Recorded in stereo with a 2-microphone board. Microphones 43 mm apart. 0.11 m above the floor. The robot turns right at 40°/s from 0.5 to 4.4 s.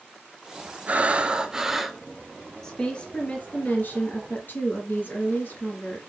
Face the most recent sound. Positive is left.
turn(degrees=90)